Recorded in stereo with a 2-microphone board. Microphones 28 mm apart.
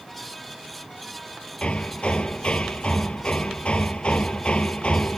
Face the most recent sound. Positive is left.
turn(degrees=40)  # may be behind; listen again after turning